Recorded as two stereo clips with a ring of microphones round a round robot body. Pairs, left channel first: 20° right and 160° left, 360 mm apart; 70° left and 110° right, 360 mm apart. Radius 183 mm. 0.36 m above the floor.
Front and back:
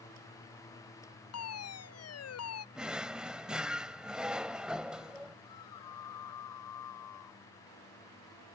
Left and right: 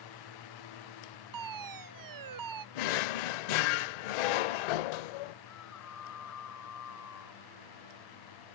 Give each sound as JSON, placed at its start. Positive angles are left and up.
{"t": 1.3, "sound": "a fire alarm", "azimuth_deg": -75}
{"t": 2.8, "sound": "a drawer", "azimuth_deg": 70}
{"t": 5.5, "sound": "a scream", "azimuth_deg": 15}